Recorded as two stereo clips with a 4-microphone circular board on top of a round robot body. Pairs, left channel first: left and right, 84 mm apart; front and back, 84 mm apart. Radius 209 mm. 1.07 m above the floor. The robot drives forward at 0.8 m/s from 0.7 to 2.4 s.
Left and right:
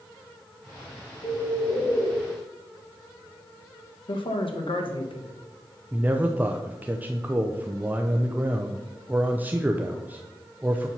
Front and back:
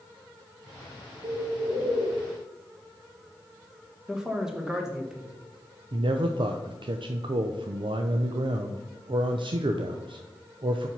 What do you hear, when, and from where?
1.2 s a bird: 145° left, 3 m; by 2.1 s 150° left, 3.5 m
4.1 s a man speaking: 95° left, 1.4 m
5.9 s a man speaking: 160° right, 0.6 m